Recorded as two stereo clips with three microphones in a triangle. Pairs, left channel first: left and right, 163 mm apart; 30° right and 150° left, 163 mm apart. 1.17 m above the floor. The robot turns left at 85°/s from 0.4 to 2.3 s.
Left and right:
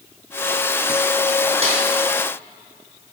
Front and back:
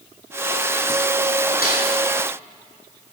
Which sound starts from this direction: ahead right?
A snare drum, at 1.6 s.